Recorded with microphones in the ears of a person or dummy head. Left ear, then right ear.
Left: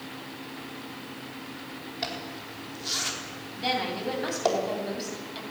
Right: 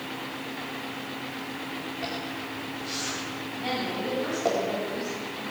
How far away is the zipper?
About 4.5 m.